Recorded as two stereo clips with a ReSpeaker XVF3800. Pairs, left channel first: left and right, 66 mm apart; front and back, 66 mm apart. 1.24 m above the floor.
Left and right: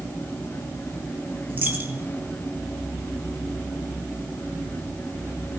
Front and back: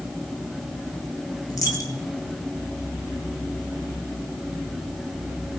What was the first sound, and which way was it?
A dropped coin, 30° right.